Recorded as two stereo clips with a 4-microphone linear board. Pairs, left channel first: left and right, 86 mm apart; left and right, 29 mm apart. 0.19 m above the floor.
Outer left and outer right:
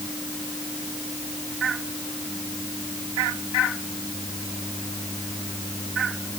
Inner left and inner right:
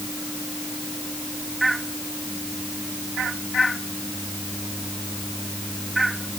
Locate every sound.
Only background noise.